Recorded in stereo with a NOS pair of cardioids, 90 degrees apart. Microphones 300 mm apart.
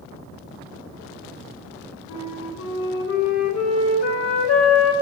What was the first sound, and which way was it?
A flute, 55° left.